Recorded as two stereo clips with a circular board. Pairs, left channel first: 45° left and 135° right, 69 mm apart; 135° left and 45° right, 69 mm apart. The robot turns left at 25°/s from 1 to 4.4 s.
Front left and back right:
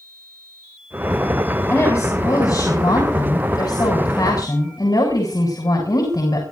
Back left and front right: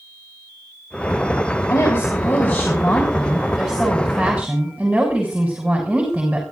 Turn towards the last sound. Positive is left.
turn(degrees=35)